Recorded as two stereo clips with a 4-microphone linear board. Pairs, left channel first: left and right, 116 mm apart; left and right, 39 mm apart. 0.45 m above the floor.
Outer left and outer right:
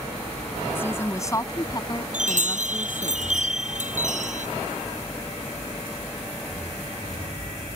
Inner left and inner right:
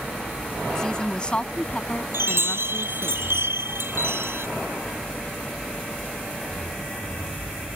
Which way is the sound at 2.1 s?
80° right.